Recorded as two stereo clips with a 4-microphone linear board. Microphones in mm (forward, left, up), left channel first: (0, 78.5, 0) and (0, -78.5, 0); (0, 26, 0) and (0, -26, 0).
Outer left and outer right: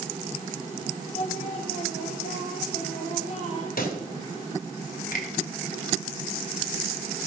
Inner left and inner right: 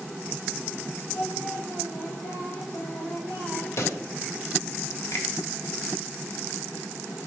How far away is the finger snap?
About 2.5 m.